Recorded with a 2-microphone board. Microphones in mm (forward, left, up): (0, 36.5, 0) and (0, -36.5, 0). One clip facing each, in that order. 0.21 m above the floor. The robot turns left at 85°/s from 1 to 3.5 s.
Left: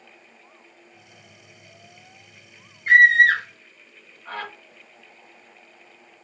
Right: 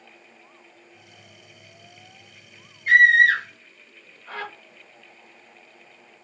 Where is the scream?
35° left (ahead or behind), 2 m; by 4.5 s 45° left (ahead or behind), 2 m.